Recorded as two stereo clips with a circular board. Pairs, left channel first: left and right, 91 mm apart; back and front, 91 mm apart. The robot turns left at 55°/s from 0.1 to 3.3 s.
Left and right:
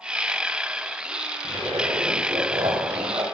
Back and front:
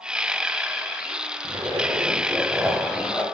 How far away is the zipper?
About 1.1 m.